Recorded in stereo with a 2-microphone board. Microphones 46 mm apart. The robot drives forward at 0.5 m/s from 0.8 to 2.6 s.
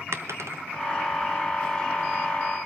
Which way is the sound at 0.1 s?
70° right (ahead or behind).